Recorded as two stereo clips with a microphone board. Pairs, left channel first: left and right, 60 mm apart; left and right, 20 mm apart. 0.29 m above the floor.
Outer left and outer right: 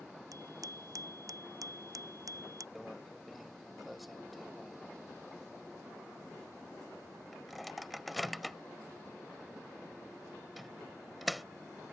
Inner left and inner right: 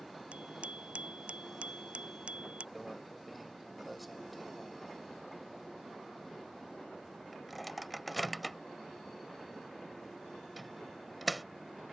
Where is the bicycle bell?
75° right (ahead or behind); by 2.6 s 70° right (ahead or behind).